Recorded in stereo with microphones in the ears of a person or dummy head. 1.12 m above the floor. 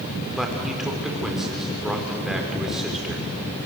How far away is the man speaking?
About 4 m.